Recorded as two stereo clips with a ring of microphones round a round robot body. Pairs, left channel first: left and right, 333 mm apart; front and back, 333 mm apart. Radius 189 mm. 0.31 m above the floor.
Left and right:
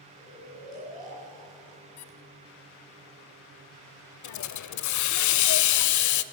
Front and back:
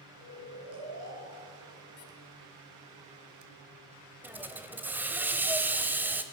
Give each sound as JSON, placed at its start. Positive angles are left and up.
{"t": 0.2, "sound": "snoring", "azimuth_deg": -155, "distance_m": 7.5}
{"t": 2.0, "sound": "a squeak", "azimuth_deg": 65, "distance_m": 0.8}
{"t": 4.2, "sound": "a hiss", "azimuth_deg": 95, "distance_m": 0.8}